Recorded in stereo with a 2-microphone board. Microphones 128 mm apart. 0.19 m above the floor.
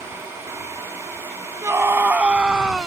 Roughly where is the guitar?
I don't hear a guitar.